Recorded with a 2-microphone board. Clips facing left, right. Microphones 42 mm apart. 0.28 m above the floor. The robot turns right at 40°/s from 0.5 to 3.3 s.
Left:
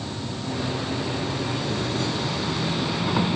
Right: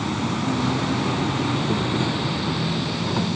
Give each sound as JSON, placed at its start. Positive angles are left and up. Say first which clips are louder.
{"t": 0.0, "sound": "an insect", "louder": "right 7 dB", "azimuth_deg": -95, "distance_m": 0.8}